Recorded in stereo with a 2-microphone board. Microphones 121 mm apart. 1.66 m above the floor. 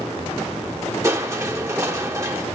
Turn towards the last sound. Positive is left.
turn(degrees=-25)  # may be behind; listen again after turning